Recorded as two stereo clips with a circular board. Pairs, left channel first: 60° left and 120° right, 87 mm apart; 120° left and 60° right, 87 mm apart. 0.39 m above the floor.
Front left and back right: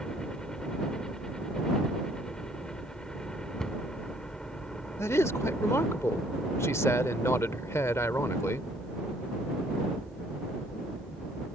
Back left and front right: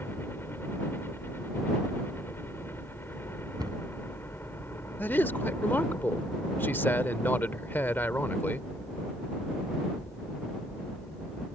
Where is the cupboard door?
25° right.